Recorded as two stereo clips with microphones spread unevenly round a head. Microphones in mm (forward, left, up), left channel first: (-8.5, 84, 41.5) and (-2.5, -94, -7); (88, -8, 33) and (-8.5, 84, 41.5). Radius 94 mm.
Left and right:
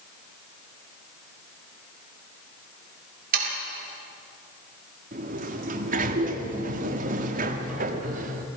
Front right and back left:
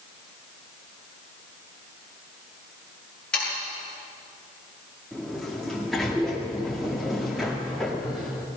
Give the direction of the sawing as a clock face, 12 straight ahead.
4 o'clock.